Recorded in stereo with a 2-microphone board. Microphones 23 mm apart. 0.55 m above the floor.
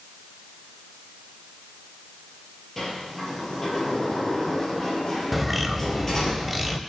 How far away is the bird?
About 0.7 m.